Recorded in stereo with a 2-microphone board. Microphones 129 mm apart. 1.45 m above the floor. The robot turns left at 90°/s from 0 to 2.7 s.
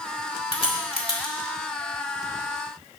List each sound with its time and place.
0.5 s a crack: 45° left (ahead or behind), 1.8 m; by 1.3 s 30° left (ahead or behind), 1.8 m